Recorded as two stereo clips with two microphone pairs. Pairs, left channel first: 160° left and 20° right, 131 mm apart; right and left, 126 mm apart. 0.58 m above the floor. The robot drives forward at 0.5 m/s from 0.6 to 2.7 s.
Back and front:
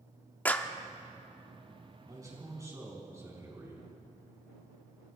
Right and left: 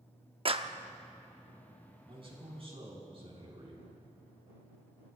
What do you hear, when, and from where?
0.5 s a clap: 85° left, 0.6 m; by 0.8 s 95° left, 0.6 m
2.1 s a man speaking: 45° left, 4.5 m